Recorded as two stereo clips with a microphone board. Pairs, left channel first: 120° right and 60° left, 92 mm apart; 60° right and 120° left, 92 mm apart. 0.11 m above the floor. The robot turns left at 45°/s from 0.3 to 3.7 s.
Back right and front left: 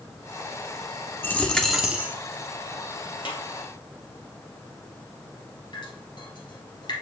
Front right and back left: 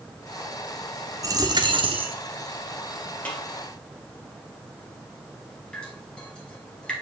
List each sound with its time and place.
1.2 s a dropped coin: 175° left, 1.0 m; by 2.2 s 130° left, 1.0 m
3.2 s a snare drum: 135° right, 2.5 m; by 3.4 s 140° right, 2.5 m
5.7 s dripping: 140° right, 3 m